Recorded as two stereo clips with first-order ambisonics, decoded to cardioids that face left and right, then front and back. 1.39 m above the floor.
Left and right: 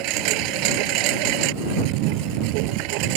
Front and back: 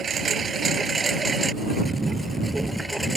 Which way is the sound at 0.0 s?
115° right.